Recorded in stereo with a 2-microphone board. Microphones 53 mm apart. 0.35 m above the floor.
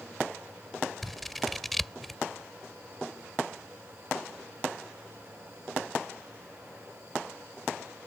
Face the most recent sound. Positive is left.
turn(degrees=0)  # may be behind; listen again after turning